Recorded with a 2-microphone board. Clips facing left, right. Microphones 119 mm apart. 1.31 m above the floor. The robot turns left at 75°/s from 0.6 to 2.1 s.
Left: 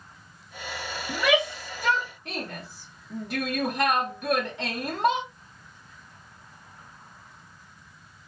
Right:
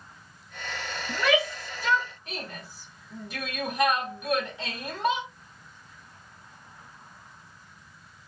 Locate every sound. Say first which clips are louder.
1.1 s a shout: left 1 dB; centre (ahead or behind), 2.0 m; by 5.3 s 70° left (ahead or behind), 2.0 m